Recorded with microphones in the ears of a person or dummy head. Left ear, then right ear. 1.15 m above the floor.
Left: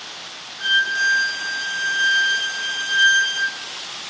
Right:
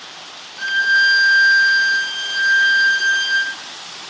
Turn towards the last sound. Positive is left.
turn(degrees=-80)